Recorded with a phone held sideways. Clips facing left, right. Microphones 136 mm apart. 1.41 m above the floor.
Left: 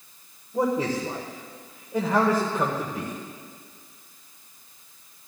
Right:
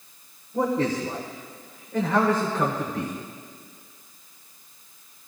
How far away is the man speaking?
About 1.3 m.